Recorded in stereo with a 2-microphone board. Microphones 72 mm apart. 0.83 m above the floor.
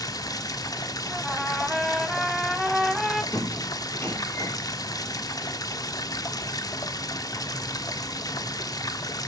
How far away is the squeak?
About 6 m.